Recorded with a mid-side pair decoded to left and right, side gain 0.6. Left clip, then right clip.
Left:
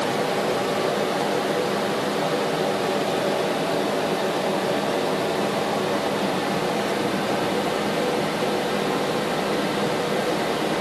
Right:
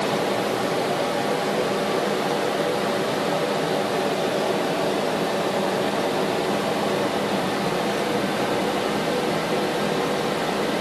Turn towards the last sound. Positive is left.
No sound to turn to.